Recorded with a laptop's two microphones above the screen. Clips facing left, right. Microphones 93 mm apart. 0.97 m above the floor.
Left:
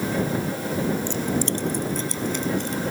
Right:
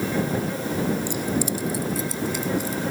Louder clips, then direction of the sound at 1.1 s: Even; 10° right (ahead or behind).